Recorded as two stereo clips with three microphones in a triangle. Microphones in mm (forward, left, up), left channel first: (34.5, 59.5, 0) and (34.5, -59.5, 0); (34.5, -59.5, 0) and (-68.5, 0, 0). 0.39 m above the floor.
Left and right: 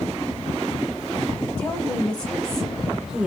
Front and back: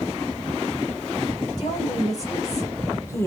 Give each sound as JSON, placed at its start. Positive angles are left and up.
{"t": 1.6, "sound": "a woman speaking", "azimuth_deg": 20, "distance_m": 1.8}